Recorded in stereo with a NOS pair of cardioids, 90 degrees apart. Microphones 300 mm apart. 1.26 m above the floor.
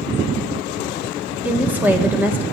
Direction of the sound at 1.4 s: 5° right.